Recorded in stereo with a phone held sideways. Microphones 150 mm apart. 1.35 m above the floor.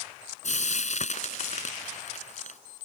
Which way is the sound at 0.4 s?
55° left (ahead or behind).